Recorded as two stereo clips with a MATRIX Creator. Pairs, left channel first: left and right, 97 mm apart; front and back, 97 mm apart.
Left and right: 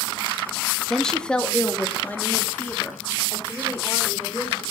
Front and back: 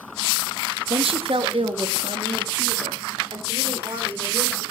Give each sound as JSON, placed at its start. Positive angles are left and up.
{"t": 0.9, "sound": "a woman speaking", "azimuth_deg": 175, "distance_m": 1.6}